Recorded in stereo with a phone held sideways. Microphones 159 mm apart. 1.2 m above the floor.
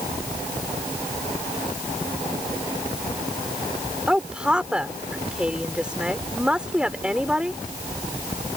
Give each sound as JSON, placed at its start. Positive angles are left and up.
{"t": 4.1, "sound": "a woman speaking", "side_deg": -5}